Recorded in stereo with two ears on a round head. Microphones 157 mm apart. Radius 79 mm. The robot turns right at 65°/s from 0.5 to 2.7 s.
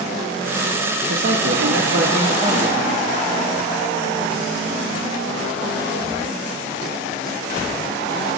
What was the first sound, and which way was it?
A man speaking, 125° right.